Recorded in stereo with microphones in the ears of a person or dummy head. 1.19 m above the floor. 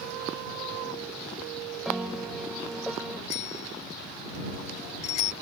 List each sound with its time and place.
1.9 s a piano: 5° left (ahead or behind)
3.3 s a bicycle bell: 45° left (ahead or behind)